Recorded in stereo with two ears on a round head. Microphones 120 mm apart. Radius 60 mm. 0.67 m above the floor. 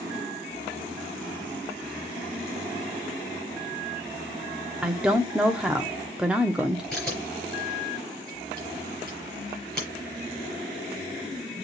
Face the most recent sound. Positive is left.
turn(degrees=5)  # may be behind; listen again after turning